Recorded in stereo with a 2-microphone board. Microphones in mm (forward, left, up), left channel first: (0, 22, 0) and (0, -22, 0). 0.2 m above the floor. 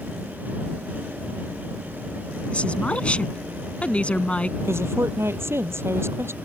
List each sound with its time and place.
2.5 s a woman speaking: 30° left (ahead or behind)
4.6 s a woman speaking: 70° right (ahead or behind)